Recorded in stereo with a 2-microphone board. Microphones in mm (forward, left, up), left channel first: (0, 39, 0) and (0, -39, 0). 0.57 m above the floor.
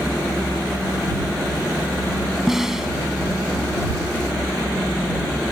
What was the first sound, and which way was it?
A snare drum, 5° right (ahead or behind).